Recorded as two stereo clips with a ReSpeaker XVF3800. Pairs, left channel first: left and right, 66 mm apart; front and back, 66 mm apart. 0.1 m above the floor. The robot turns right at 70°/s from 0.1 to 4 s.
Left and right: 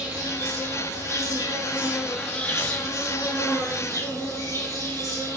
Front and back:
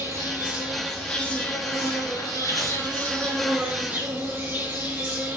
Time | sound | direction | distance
0.0 | an insect | 145° right | 3 m